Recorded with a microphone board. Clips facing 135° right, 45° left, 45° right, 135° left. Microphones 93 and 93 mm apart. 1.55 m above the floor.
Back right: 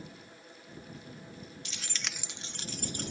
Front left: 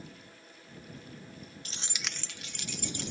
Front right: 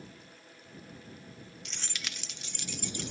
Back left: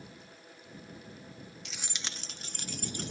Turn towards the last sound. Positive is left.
turn(degrees=180)